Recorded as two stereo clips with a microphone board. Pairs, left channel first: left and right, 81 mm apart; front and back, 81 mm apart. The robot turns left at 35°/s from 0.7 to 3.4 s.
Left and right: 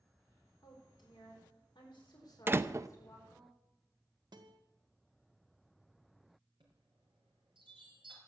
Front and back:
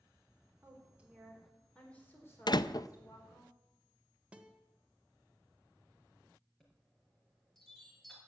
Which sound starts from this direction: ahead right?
A door slam, at 2.5 s.